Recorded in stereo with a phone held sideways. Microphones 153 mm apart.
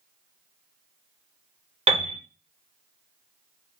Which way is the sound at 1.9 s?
45° right (ahead or behind).